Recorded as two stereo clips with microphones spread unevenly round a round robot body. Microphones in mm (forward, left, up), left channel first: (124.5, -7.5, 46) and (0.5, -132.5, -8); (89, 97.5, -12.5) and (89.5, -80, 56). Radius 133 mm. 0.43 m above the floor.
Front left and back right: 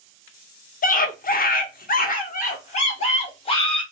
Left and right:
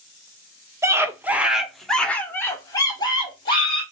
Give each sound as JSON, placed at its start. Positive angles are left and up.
{"t": 0.8, "sound": "a scream", "azimuth_deg": 5, "distance_m": 1.1}